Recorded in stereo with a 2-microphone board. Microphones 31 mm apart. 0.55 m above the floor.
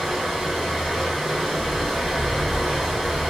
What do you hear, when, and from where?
0.0 s running water: 5° right (ahead or behind), 1.2 m